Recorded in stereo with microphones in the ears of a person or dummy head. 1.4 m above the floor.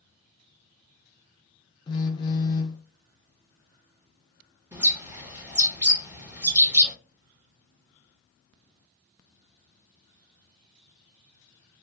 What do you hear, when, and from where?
1.9 s a phone buzzing: 20° left (ahead or behind), 0.5 m
4.7 s a bird: 10° right (ahead or behind), 0.8 m